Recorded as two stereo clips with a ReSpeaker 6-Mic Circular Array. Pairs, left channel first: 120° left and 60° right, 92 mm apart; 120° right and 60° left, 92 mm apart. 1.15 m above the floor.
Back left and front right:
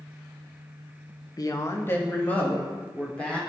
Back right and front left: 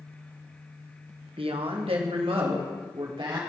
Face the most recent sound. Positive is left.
turn(degrees=40)